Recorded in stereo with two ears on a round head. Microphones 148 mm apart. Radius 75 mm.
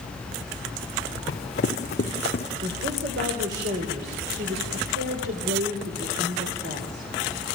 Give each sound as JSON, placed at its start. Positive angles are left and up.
{"t": 1.3, "sound": "running footsteps", "side_deg": 45, "distance_m": 3.0}
{"t": 2.6, "sound": "a woman speaking", "side_deg": -65, "distance_m": 3.0}